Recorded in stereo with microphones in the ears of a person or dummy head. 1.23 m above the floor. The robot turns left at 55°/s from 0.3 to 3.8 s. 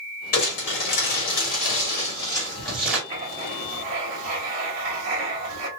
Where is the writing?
40° right, 2.5 m; by 5.7 s 80° right, 2.5 m.